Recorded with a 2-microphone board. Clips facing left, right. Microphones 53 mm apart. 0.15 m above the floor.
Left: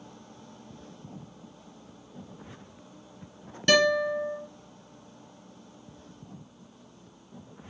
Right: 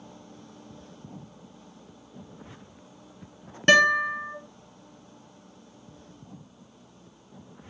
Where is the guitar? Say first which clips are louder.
Right 3 dB; 40° right (ahead or behind), 1.4 m.